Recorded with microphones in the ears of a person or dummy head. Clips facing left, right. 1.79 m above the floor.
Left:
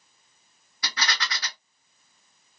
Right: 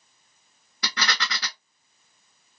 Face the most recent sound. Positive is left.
turn(degrees=-70)  # may be behind; listen again after turning